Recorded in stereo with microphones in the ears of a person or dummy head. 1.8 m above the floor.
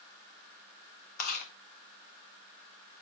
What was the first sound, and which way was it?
Chewing, 50° left (ahead or behind).